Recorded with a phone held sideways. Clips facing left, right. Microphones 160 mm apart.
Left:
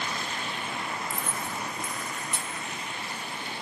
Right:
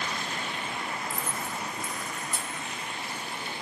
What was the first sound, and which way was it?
Keys jangling, 75° left (ahead or behind).